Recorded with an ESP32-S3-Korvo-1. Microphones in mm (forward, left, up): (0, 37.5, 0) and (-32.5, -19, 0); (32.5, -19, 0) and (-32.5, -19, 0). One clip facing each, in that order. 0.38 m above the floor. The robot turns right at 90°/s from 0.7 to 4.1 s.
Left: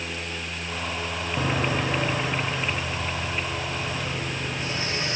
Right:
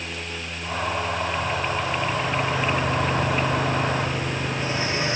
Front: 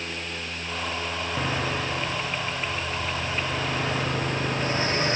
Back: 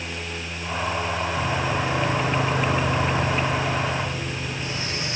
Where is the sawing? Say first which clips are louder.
Even, back 1 dB; 60° left; by 5.2 s 55° right.